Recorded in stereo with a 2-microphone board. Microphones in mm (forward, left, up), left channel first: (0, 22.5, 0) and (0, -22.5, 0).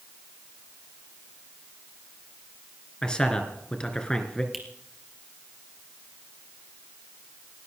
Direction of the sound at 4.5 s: Centre (ahead or behind).